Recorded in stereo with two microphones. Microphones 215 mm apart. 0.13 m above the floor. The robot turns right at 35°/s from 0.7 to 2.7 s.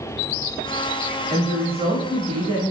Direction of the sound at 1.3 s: 30° right (ahead or behind).